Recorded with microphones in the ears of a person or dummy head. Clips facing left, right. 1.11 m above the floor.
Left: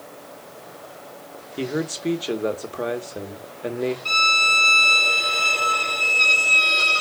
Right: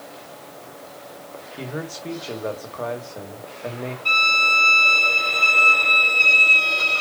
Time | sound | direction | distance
1.6 | a man speaking | 35° left (ahead or behind) | 1.2 m
4.0 | a violin | 10° left (ahead or behind) | 0.7 m